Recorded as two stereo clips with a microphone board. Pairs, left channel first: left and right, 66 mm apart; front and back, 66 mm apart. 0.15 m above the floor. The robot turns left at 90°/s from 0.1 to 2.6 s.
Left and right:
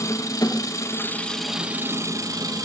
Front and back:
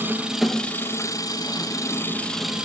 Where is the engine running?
120° left, 2 m; by 2.6 s 105° right, 2 m.